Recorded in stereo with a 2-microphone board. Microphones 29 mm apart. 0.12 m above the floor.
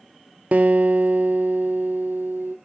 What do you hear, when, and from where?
0.5 s a guitar: 65° right (ahead or behind), 0.5 m